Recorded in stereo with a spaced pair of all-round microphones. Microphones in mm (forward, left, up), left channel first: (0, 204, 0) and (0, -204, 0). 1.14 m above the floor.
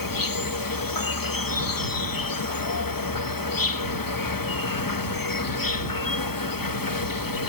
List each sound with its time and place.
0.0 s an insect: 55° left (ahead or behind)